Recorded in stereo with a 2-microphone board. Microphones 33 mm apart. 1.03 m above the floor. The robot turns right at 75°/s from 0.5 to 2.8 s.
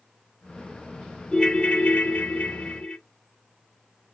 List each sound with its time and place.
1.3 s a ringtone: 25° left, 0.6 m; by 3.0 s 135° left, 0.6 m